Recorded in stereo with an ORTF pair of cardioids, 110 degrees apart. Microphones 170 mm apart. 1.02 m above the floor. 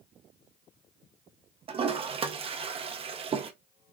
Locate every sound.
1.7 s a toilet flushing: 35° right, 0.7 m